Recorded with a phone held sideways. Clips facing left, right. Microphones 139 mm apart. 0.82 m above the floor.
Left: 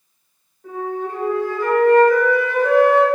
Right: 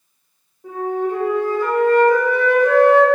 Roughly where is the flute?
Centre.